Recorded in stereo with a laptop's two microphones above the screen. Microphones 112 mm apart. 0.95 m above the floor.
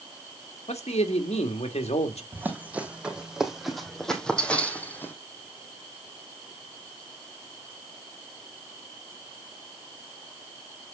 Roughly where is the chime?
No chime in this recording.